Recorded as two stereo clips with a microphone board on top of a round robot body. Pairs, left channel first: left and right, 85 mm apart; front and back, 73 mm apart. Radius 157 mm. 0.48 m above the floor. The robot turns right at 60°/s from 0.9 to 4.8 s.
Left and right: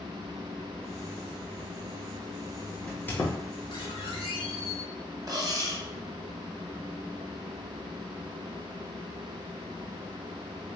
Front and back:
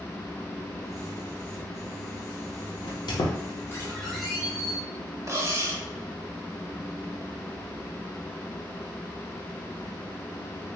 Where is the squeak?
10° left, 0.7 m; by 4.8 s 125° left, 0.7 m.